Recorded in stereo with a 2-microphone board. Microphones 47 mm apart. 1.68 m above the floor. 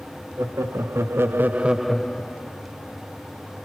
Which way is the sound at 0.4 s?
80° right.